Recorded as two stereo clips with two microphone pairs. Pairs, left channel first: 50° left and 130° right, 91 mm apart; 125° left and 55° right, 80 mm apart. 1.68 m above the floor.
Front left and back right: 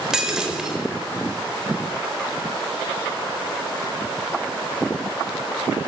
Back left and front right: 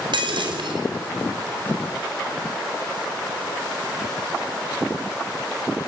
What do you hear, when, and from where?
0.1 s breaking glass: 45° right, 4.5 m